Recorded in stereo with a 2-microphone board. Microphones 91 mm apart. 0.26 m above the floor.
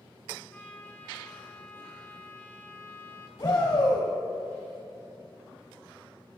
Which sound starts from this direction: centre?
A trumpet, at 0.5 s.